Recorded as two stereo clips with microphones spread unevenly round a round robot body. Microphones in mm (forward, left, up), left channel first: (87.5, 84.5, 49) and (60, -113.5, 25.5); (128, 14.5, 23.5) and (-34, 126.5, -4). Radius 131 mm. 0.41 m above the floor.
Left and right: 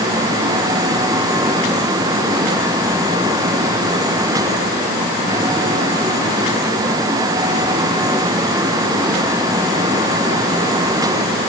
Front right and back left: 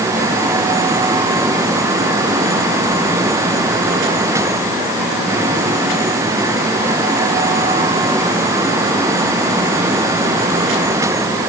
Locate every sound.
Only background noise.